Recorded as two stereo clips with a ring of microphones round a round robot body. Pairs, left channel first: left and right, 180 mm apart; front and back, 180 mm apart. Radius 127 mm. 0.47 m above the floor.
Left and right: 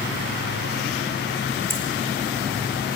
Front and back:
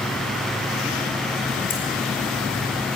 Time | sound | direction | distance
1.7 | keys jangling | 15° right | 4 m